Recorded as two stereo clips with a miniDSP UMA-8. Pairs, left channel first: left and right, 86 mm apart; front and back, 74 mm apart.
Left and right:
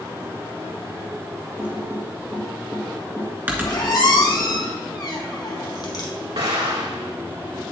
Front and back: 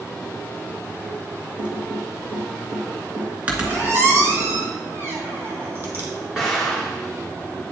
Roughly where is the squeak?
Behind left.